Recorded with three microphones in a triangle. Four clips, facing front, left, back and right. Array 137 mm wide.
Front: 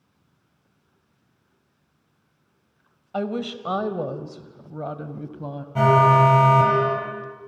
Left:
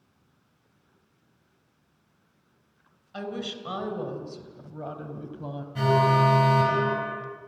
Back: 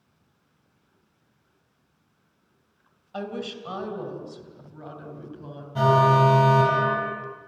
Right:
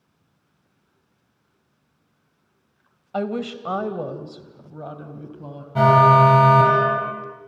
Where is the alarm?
75° right, 3.5 m.